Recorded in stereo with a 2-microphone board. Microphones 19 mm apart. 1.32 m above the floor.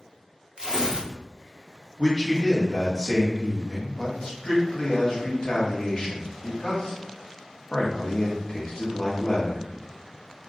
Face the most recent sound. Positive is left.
turn(degrees=45)  # may be behind; listen again after turning